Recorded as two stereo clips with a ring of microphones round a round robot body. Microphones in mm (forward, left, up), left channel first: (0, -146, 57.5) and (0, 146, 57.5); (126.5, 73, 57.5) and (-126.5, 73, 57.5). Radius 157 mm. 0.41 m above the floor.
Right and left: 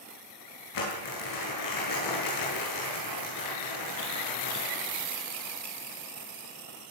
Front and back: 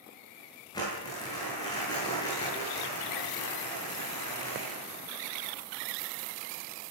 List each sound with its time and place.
0.7 s crumpling: 75° right, 9.5 m